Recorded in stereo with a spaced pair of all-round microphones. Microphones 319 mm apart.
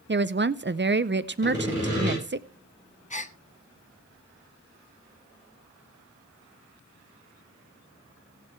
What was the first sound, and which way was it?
A woman speaking, 40° right (ahead or behind).